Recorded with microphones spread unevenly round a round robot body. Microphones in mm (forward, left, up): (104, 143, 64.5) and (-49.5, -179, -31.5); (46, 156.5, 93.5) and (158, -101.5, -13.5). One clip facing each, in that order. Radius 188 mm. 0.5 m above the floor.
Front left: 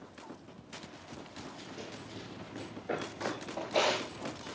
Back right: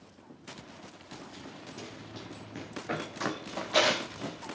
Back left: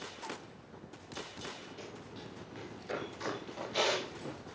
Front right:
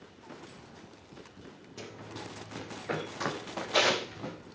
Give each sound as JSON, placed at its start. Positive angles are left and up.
{"t": 1.8, "sound": "running footsteps", "azimuth_deg": -50, "distance_m": 7.5}